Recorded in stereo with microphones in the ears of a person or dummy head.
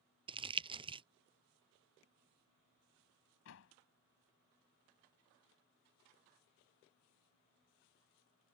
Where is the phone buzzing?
No phone buzzing in this recording.